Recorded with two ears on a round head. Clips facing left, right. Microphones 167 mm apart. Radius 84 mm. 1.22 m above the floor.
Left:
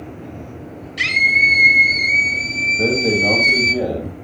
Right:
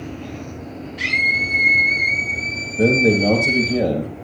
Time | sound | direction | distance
1.0 | a scream | 85° left | 5 m
2.8 | a man speaking | 25° right (ahead or behind) | 5.5 m